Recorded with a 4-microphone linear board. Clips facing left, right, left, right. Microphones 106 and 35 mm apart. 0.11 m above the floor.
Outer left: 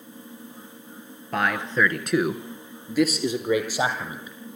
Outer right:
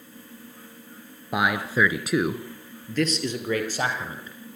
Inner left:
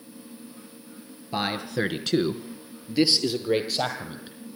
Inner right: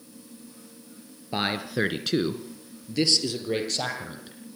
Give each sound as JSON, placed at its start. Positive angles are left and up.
{"t": 1.3, "sound": "a man speaking", "side_deg": -10, "distance_m": 1.6}